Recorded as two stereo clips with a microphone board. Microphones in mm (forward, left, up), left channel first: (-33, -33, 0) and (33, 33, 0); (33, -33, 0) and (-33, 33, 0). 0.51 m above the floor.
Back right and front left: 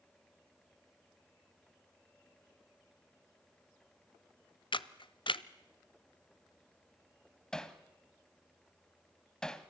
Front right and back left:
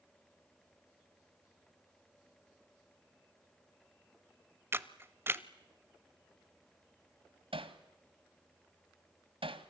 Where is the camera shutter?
160° right, 0.7 m.